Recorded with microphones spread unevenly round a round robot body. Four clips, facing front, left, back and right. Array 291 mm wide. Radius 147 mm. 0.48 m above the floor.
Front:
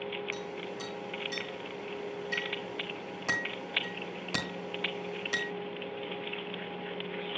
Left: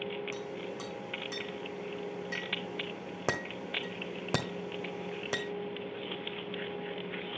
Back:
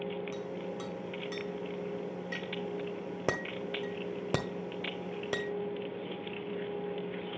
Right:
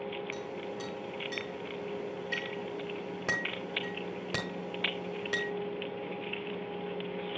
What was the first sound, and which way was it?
A clink, 155° left.